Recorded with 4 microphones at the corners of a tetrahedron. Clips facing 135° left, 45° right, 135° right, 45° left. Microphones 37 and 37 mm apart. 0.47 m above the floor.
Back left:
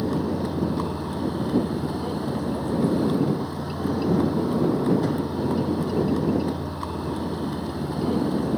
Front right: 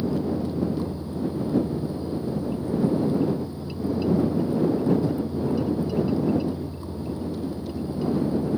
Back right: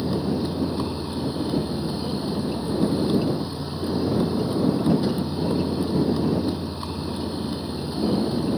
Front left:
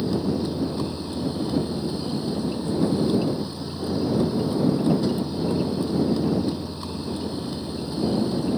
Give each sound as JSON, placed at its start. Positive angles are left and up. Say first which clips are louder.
{"t": 0.0, "sound": "a vehicle", "louder": "back left 1 dB, even", "azimuth_deg": 150}